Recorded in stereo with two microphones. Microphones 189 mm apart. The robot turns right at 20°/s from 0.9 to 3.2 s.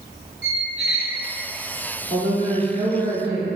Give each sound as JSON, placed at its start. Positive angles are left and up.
{"t": 0.4, "sound": "a squeak", "side_deg": 65, "distance_m": 0.6}
{"t": 2.1, "sound": "a woman speaking", "side_deg": -35, "distance_m": 1.2}